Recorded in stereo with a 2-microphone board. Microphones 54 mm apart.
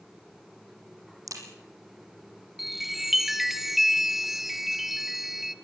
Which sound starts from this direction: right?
A crack, at 1.3 s.